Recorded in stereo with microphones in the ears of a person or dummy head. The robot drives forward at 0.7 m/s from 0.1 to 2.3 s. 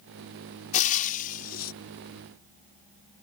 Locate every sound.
0.7 s frying: 40° left (ahead or behind); by 1.7 s 55° left (ahead or behind)